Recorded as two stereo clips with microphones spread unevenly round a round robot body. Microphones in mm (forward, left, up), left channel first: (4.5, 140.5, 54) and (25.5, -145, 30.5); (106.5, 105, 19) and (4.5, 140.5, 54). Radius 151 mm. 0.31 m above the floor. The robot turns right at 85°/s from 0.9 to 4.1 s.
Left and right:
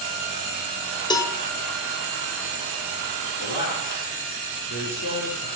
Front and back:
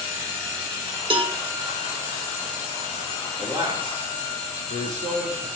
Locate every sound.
1.1 s a cowbell: 165° left, 1.0 m; by 1.4 s 175° right, 1.0 m
3.4 s a man speaking: 90° left, 5 m; by 5.5 s 150° left, 5 m